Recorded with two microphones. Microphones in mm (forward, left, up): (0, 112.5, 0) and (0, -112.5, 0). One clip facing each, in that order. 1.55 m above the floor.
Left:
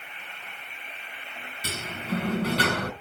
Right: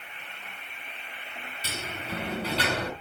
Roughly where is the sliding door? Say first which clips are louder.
Left 5 dB; left.